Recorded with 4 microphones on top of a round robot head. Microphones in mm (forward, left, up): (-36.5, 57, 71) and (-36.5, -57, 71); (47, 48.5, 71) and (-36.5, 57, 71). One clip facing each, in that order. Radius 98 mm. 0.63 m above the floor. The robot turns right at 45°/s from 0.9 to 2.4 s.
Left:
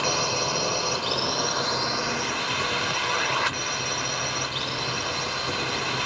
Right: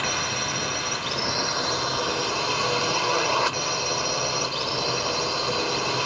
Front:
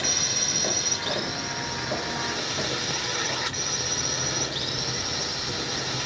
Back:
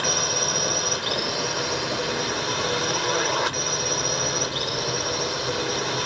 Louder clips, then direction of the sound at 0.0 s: Left 3 dB, back 6 dB; 145° left.